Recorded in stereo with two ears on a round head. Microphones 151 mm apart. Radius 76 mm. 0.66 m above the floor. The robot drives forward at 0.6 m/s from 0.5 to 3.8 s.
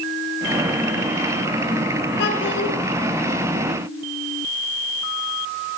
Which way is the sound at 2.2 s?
70° left (ahead or behind).